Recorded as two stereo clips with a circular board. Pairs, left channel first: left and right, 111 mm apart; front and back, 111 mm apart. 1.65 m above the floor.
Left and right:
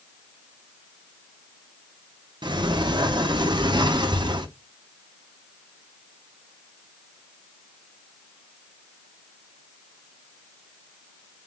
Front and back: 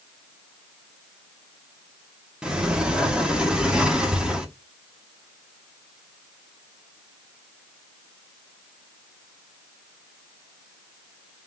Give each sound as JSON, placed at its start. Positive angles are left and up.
{"t": 2.4, "sound": "a sliding door", "azimuth_deg": -100, "distance_m": 0.5}